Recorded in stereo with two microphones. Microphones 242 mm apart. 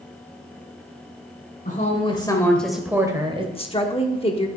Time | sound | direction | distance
1.6 | a woman speaking | 35° left (ahead or behind) | 1.7 m
3.5 | a woman speaking | 25° left (ahead or behind) | 1.1 m